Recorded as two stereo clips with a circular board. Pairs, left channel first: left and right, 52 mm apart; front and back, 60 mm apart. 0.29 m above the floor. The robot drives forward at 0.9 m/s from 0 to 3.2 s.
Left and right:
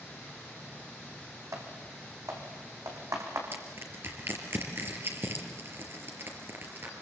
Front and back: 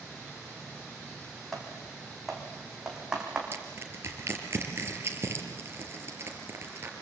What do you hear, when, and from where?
1.5 s typing on a keyboard: 85° right, 5.5 m; by 3.4 s 100° right, 5.5 m
3.5 s crushing: 130° right, 4.5 m